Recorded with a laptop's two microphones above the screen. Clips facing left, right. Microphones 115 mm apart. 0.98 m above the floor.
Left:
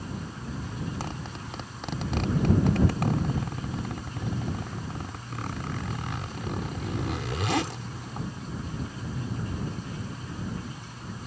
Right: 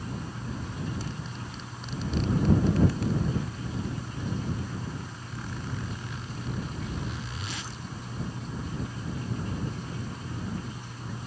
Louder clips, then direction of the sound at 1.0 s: Left 1 dB; 80° left.